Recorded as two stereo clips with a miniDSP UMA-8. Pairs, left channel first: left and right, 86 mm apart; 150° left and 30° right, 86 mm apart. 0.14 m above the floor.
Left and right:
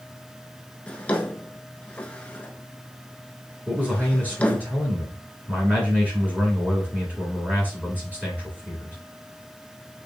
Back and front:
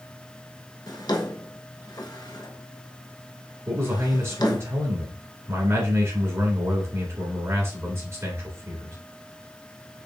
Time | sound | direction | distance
0.9 | a drawer | 160° left | 0.8 m
3.7 | a man speaking | 35° right | 1.7 m